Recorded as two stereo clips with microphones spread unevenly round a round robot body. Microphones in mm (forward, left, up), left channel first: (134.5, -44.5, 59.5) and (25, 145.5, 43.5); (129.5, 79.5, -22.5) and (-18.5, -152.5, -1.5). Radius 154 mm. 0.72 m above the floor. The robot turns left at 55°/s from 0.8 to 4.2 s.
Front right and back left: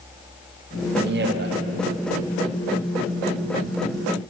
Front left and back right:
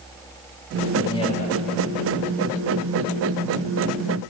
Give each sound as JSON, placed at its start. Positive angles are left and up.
{"t": 1.0, "sound": "a man speaking", "azimuth_deg": 135, "distance_m": 1.1}